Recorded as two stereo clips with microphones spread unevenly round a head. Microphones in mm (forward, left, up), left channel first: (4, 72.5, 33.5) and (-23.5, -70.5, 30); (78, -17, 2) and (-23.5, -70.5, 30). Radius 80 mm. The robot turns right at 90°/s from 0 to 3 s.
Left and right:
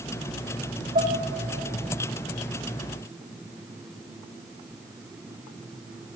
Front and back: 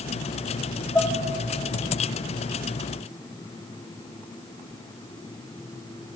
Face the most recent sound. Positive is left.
turn(degrees=135)